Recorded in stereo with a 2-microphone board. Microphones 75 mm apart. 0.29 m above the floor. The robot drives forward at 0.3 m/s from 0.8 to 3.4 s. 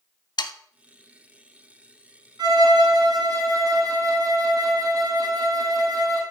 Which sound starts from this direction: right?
A violin, at 2.4 s.